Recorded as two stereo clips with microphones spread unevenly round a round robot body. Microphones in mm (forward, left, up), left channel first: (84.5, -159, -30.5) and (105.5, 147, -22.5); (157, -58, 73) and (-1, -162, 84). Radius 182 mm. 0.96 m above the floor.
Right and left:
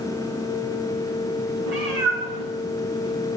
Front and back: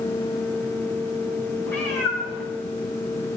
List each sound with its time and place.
1.7 s a cat meowing: 90° left, 8.5 m